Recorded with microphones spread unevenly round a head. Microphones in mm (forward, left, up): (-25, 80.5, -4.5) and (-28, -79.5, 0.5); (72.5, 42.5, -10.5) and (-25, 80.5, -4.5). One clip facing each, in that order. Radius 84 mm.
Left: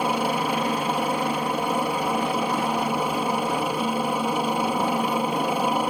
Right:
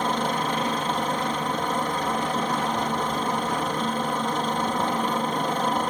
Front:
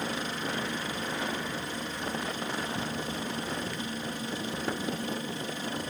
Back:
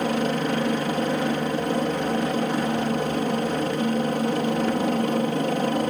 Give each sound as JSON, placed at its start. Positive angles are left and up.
{"t": 0.0, "sound": "a helicopter", "azimuth_deg": 170}